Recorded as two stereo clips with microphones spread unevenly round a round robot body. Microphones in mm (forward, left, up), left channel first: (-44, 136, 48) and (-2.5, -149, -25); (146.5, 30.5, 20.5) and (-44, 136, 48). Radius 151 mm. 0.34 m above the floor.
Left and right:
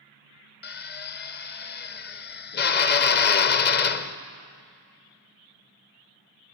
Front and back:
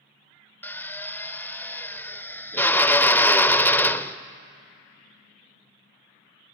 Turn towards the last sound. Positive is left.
turn(degrees=40)